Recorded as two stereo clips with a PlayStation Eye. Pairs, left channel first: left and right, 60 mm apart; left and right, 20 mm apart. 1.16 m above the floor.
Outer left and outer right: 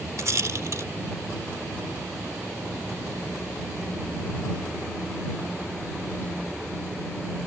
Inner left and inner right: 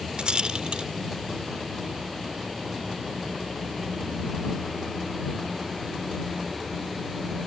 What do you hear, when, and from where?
0.2 s a rattle: 55° right (ahead or behind)